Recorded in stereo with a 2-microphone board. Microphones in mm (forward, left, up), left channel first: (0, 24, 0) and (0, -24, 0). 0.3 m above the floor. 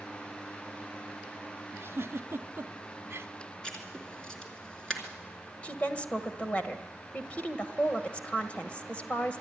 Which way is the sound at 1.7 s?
60° right (ahead or behind).